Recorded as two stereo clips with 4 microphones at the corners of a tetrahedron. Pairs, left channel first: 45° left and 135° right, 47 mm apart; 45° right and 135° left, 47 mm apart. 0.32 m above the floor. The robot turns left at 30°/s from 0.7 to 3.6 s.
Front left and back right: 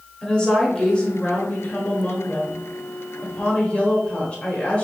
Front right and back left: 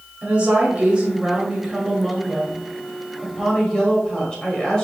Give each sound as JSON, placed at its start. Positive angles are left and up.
{"t": 0.2, "sound": "a woman speaking", "azimuth_deg": 100, "distance_m": 1.3}